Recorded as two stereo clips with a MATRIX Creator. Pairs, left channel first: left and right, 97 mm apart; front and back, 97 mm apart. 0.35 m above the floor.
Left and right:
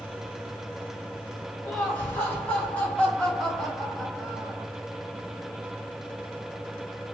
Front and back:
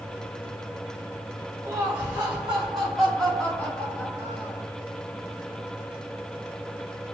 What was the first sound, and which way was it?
Laughter, 135° left.